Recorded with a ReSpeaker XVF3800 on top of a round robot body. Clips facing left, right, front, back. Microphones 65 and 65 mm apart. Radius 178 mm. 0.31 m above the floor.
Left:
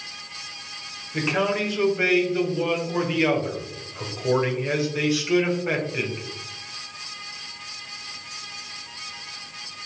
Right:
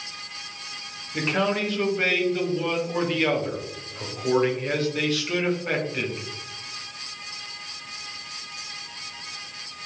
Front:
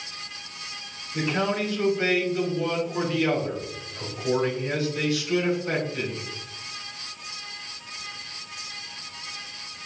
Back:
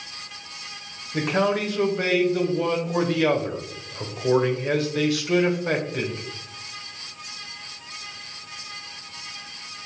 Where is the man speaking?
170° left, 2.0 m.